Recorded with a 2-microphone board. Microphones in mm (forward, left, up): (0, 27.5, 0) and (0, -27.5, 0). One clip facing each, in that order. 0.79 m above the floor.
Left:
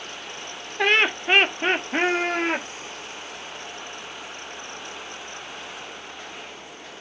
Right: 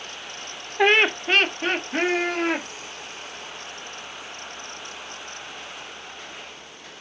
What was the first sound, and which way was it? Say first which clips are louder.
Laughter: right 2 dB; 10° right (ahead or behind).